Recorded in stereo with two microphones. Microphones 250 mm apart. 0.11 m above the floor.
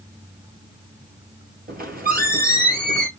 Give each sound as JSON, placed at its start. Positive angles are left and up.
{"t": 1.7, "sound": "a squeak", "side_deg": -35, "distance_m": 1.7}